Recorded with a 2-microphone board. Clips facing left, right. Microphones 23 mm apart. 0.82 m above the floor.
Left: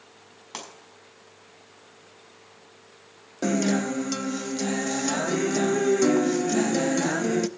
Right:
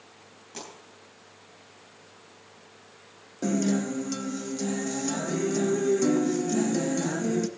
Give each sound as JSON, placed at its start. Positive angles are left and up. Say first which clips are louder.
{"t": 0.5, "sound": "a pop", "louder": "left 3 dB", "side_deg": 60, "distance_m": 5.5}
{"t": 3.4, "sound": "a guitar", "louder": "left 2 dB", "side_deg": 30, "distance_m": 0.5}